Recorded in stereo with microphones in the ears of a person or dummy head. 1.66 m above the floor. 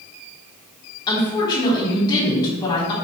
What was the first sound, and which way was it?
A woman speaking, 25° left (ahead or behind).